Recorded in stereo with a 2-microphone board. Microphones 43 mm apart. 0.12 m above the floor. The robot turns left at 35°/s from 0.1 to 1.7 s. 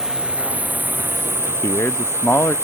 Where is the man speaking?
75° left (ahead or behind); by 2.5 s 70° left (ahead or behind).